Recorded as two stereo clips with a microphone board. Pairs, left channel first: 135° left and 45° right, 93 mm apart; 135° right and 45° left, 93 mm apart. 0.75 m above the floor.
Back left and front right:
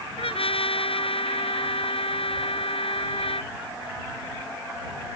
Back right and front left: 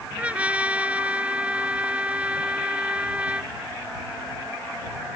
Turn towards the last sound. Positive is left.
turn(degrees=120)